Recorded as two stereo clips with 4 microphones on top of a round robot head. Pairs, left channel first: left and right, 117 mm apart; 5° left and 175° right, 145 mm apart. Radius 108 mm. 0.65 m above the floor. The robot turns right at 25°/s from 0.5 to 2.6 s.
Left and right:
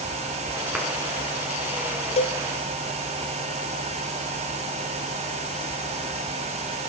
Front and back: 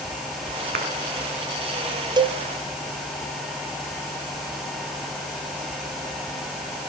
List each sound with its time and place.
0.7 s a clap: 170° right, 5 m
2.2 s a cowbell: 125° left, 0.9 m; by 2.4 s 130° left, 0.9 m